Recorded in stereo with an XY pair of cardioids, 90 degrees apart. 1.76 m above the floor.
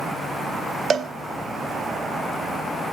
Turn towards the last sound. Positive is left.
turn(degrees=-55)